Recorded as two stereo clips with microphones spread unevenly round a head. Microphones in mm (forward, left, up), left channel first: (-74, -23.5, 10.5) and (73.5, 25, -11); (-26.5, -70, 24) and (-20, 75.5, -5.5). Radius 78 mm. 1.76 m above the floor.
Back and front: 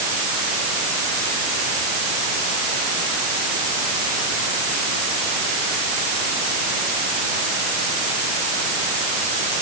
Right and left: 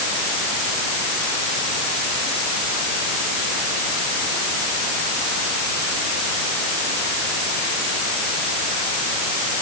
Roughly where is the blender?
I don't hear a blender.